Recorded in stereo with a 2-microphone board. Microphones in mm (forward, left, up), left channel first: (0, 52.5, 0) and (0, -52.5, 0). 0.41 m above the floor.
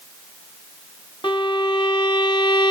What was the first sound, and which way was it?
A violin, 45° left (ahead or behind).